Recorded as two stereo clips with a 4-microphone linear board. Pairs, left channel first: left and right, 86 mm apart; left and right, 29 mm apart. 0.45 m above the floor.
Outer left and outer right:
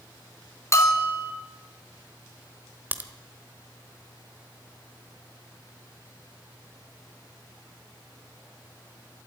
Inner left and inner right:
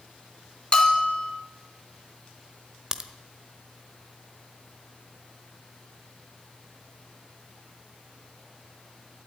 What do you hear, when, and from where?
0.7 s a bell: 30° left (ahead or behind), 2.5 m
2.9 s a crack: 20° right (ahead or behind), 1.2 m